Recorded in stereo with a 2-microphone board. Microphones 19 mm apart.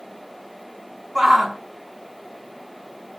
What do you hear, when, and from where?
1.1 s a shout: 20° right (ahead or behind), 1.5 m